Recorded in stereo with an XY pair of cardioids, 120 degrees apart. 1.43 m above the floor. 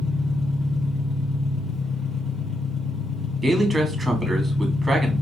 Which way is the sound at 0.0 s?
35° left.